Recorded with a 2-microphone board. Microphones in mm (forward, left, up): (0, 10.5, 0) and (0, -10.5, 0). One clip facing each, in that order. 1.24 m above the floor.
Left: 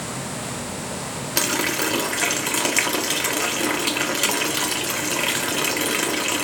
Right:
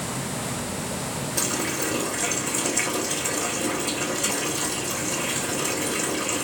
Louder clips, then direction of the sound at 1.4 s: Left 6 dB; 80° left.